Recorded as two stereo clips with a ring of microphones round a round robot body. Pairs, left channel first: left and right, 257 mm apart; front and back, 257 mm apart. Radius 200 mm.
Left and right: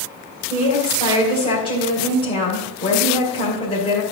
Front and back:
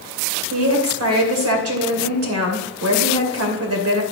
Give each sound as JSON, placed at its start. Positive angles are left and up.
{"t": 0.5, "sound": "a woman speaking", "azimuth_deg": 160, "distance_m": 2.5}